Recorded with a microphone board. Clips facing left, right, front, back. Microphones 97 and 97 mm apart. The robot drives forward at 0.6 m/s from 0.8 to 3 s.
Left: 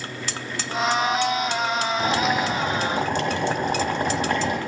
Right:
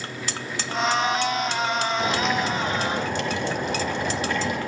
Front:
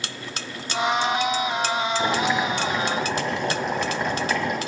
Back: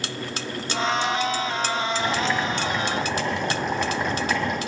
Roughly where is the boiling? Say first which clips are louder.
Left 2 dB, front 2 dB; ahead left.